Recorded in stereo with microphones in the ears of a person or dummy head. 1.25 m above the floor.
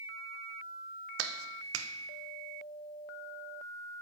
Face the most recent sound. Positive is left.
turn(degrees=-70)  # may be behind; listen again after turning